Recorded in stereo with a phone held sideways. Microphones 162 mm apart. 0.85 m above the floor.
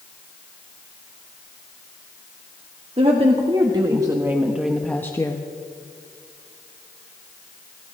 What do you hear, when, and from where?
3.0 s a woman speaking: 40° right (ahead or behind), 1.8 m; by 5.4 s 25° left (ahead or behind), 1.0 m